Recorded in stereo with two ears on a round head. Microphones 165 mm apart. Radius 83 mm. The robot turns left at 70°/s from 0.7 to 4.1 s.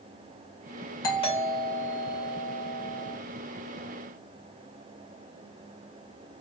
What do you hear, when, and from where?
1.0 s a doorbell: 155° left, 3 m; by 3.2 s 5° left, 3 m